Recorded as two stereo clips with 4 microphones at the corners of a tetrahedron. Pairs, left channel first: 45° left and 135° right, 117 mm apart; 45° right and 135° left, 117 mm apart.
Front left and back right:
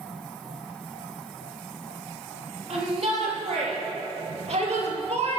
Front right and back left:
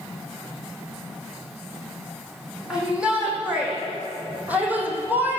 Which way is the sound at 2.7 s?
145° right.